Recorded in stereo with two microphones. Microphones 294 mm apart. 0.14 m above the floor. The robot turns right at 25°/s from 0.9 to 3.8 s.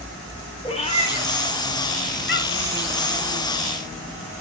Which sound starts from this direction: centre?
A cat meowing, at 0.6 s.